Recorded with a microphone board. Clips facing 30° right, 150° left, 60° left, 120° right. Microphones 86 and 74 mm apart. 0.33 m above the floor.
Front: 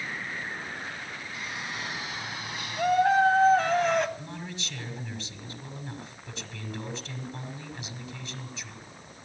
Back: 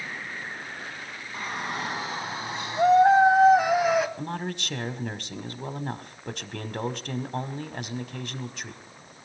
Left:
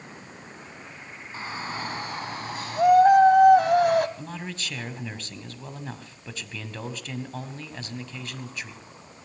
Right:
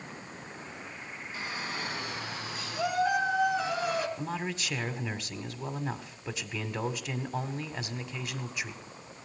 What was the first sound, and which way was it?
A shout, 110° left.